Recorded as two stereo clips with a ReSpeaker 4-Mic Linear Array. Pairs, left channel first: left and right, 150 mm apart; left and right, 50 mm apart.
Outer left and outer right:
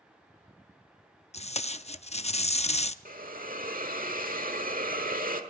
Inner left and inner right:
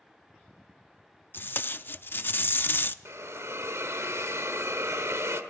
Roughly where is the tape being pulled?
Left.